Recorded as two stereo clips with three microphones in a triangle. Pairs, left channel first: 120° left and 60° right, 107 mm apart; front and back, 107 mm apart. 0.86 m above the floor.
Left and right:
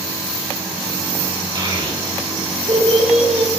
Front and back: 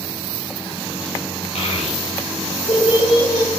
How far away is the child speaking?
About 2.5 m.